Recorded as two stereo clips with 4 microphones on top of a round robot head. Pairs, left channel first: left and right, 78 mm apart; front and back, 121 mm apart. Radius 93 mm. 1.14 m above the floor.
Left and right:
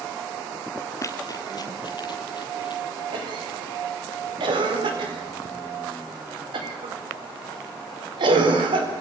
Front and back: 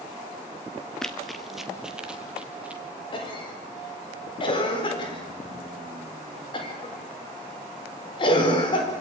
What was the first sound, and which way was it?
Running footsteps, 80° left.